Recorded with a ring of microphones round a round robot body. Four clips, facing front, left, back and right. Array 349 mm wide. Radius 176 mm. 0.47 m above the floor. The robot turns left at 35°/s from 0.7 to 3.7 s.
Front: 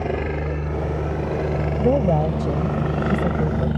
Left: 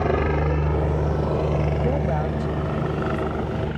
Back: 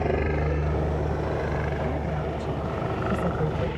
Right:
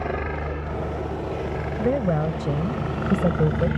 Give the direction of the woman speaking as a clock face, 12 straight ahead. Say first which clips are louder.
Right 1 dB, front 10 dB; 1 o'clock.